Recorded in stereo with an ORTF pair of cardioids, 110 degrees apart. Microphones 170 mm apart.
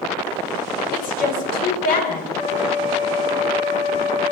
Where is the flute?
45° left, 7 m.